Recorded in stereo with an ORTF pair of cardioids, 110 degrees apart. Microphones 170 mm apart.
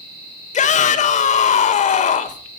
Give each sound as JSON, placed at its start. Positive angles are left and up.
{"t": 0.5, "sound": "a shout", "azimuth_deg": 45, "distance_m": 4.5}